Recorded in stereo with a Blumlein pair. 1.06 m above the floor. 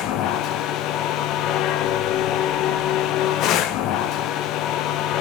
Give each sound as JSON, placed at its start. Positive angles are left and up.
{"t": 0.0, "sound": "a machine running", "azimuth_deg": 35, "distance_m": 1.3}